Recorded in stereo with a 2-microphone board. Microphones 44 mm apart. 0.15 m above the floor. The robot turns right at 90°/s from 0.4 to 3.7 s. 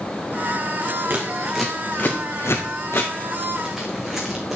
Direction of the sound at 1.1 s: 50° right (ahead or behind).